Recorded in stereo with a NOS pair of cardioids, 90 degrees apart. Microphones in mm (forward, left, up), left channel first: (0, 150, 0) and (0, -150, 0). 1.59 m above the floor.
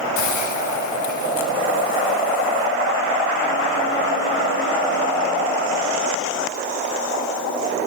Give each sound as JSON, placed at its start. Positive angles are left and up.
{"t": 0.2, "sound": "a hiss", "azimuth_deg": 65, "distance_m": 6.0}